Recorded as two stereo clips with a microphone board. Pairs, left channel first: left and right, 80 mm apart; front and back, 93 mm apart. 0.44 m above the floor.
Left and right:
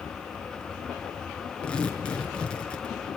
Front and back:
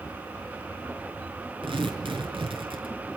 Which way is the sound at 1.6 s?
165° left.